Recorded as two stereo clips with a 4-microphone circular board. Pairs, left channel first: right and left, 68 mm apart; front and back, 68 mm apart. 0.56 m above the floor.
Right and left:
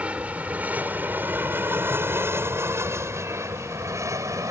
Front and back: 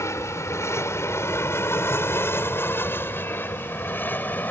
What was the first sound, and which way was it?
An aircraft, 25° left.